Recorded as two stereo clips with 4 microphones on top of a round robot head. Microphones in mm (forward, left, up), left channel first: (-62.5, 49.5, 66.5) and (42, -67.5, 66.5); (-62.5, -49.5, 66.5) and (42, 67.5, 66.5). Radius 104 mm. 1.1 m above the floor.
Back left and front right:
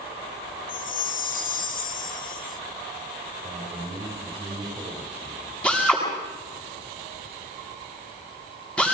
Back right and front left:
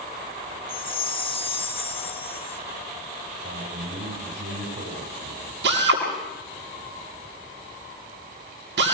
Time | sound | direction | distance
0.7 | a chime | 170° left | 1.5 m
3.4 | a man speaking | 15° left | 5 m
5.6 | a drill | 50° left | 8 m